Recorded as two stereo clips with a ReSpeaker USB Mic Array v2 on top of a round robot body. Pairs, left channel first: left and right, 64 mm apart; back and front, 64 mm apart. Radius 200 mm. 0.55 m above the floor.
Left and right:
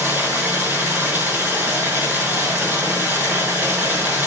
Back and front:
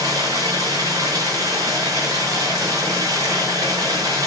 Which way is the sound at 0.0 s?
30° right.